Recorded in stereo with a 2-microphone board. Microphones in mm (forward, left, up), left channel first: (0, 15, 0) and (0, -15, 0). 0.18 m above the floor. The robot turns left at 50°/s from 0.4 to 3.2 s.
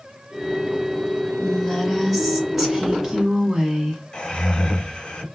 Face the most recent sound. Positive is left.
turn(degrees=30)  # may be behind; listen again after turning